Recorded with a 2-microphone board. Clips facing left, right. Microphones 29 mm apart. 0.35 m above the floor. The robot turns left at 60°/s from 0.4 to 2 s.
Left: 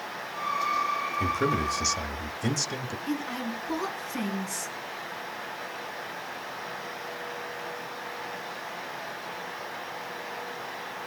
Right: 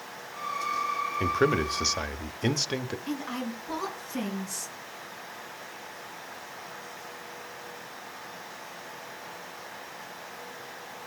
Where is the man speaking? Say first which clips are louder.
Right 3 dB; 60° right, 0.9 m; by 3.0 s 110° right, 0.9 m.